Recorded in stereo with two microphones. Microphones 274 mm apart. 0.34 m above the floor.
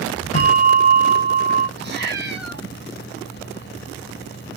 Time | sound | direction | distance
0.3 | a bell | 60° left (ahead or behind) | 2.5 m
1.8 | a cat meowing | 40° right (ahead or behind) | 0.9 m